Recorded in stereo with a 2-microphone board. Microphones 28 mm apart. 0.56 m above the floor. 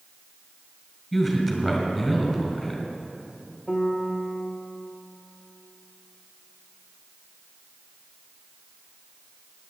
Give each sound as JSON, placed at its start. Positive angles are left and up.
{"t": 1.1, "sound": "a man speaking", "side_deg": -5, "distance_m": 3.0}
{"t": 3.7, "sound": "a piano", "side_deg": -35, "distance_m": 1.7}